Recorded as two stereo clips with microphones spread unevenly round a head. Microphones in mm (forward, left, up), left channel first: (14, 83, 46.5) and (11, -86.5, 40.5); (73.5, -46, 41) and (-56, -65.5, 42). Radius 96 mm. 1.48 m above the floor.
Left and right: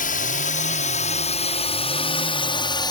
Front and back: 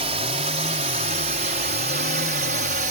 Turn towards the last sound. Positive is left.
turn(degrees=155)